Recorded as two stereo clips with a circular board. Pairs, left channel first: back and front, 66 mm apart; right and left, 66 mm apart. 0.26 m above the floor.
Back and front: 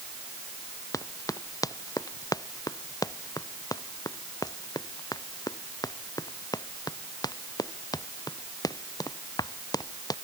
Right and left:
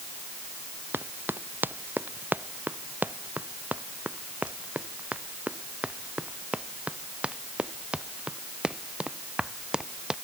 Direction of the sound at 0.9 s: 150° left.